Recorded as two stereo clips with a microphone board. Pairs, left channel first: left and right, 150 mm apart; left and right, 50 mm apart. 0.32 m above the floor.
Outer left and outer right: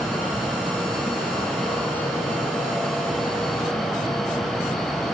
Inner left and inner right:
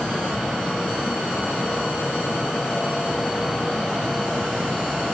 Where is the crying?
I don't hear crying.